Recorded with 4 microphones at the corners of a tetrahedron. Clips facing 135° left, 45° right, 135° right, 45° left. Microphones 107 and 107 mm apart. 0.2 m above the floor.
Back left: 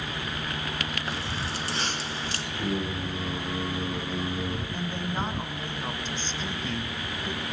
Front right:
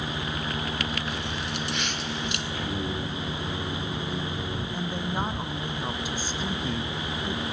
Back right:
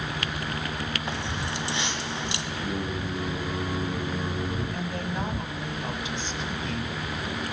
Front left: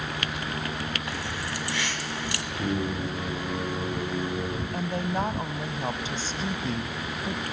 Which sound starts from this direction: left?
Singing, at 2.5 s.